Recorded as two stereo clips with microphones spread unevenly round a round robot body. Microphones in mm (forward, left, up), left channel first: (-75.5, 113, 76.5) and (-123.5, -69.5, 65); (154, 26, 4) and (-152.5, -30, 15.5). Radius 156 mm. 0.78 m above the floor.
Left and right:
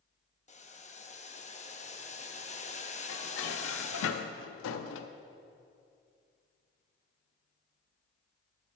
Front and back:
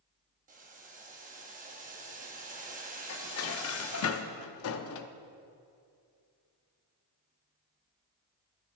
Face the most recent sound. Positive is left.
turn(degrees=60)